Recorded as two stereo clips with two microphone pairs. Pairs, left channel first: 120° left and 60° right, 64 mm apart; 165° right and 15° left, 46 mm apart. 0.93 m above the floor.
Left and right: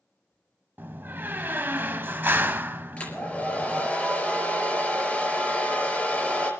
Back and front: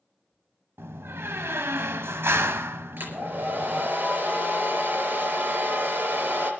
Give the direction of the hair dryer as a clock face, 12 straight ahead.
10 o'clock.